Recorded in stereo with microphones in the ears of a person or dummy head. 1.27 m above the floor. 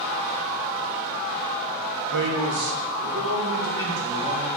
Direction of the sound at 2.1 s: 65° right (ahead or behind).